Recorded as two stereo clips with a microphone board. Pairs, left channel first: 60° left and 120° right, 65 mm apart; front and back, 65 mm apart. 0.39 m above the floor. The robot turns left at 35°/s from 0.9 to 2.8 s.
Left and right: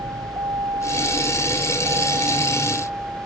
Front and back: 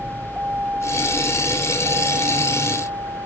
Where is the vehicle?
120° right; by 3.3 s 175° left.